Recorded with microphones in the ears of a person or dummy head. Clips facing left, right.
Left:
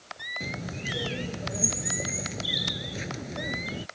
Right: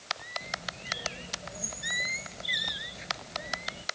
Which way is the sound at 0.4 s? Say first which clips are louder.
Left 7 dB; 65° left (ahead or behind).